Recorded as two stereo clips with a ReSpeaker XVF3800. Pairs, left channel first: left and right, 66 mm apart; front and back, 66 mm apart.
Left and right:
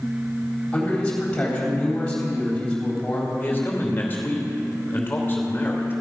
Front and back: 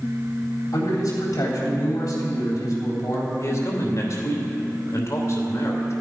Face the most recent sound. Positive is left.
turn(degrees=30)